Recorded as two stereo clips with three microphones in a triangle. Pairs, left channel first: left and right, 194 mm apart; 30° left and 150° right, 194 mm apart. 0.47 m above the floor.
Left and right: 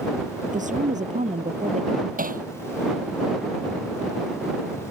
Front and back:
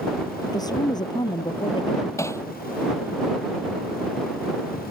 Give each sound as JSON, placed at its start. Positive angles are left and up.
{"t": 0.4, "sound": "a woman speaking", "azimuth_deg": -40}
{"t": 2.2, "sound": "hammering", "azimuth_deg": -45}